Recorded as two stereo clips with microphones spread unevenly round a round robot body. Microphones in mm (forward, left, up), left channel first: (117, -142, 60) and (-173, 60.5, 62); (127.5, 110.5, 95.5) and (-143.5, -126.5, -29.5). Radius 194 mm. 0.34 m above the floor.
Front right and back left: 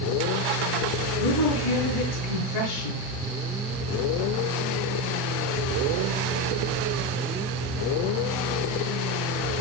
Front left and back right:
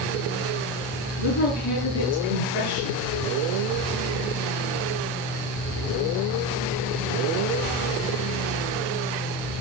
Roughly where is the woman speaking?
Ahead.